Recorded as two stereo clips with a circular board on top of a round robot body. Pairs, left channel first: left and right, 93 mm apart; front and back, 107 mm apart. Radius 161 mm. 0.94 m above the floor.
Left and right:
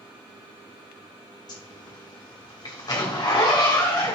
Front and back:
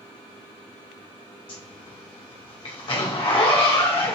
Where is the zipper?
40° left, 1.8 m.